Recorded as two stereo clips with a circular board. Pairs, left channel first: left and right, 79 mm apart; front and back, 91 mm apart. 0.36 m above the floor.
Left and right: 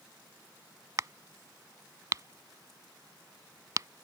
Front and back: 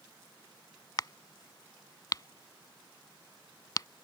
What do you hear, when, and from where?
1.0 s a crack: 45° right